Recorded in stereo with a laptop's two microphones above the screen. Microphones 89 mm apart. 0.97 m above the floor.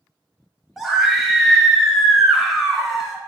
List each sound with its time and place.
0.8 s a scream: centre (ahead or behind), 0.8 m